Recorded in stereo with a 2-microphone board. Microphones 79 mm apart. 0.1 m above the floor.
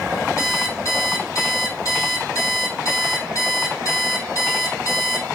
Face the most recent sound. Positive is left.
turn(degrees=40)  # may be behind; listen again after turning